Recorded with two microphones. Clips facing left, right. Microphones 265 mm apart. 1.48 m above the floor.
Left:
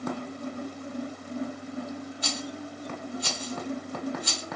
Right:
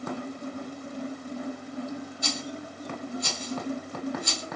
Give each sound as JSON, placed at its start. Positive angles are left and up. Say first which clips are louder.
{"t": 2.2, "sound": "a rattle", "louder": "even", "side_deg": -45, "distance_m": 1.2}